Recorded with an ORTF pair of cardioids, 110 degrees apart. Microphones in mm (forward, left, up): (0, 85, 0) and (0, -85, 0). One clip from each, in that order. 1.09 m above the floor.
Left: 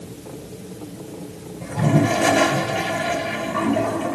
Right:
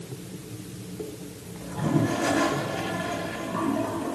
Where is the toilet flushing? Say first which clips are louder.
Left 6 dB; 45° left, 2.5 m.